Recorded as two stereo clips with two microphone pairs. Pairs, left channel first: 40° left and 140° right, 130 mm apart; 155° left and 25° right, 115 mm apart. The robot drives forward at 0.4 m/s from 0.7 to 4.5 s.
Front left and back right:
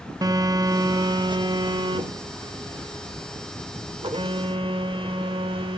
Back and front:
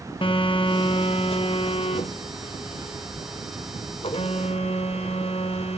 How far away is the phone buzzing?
About 0.7 m.